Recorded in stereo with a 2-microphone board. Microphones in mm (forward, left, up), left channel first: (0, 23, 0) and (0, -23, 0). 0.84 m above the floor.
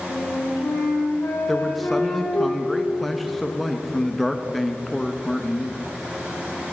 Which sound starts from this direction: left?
A flute, at 0.1 s.